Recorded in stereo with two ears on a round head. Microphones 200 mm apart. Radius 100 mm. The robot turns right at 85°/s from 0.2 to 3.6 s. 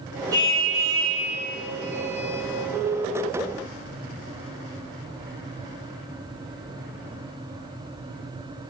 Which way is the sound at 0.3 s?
165° right.